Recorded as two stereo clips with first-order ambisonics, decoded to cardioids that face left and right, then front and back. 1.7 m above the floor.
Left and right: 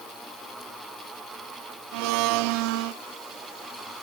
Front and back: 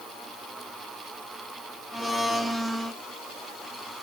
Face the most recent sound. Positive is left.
turn(degrees=-95)